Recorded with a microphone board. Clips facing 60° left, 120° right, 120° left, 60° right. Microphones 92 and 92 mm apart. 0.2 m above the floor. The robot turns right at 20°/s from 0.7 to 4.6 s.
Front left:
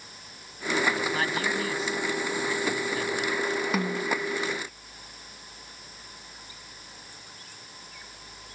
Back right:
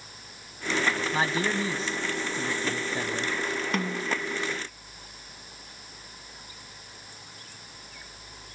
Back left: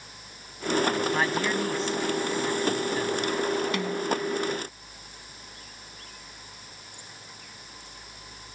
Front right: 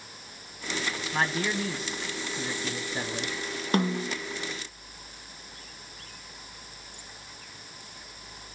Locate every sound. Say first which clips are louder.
1.1 s a man speaking: back right 1 dB, back left 3 dB; 150° right, 1.2 m; by 3.4 s 105° right, 1.2 m
3.7 s a snare drum: front left 2 dB, even; 20° right, 0.7 m; by 4.2 s 15° right, 0.7 m